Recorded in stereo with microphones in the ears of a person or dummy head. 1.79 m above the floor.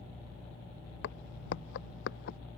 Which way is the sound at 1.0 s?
60° left (ahead or behind).